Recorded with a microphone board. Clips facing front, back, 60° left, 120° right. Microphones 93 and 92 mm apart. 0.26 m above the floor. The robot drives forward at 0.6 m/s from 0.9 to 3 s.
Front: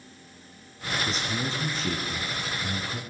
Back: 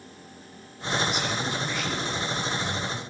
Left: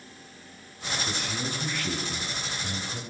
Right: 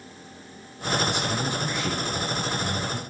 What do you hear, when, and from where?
1.1 s a man speaking: 50° right, 3 m; by 3.0 s 75° right, 2.5 m